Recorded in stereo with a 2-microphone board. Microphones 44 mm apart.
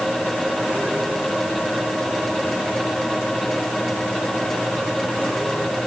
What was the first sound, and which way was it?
Only background noise.